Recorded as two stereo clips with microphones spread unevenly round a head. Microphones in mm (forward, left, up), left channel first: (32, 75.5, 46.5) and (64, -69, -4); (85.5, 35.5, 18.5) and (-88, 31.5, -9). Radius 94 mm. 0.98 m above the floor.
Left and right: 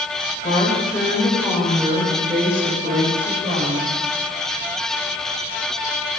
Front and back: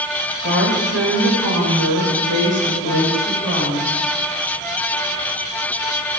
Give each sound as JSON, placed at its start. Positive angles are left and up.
{"t": 0.4, "sound": "a woman speaking", "azimuth_deg": 160, "distance_m": 4.0}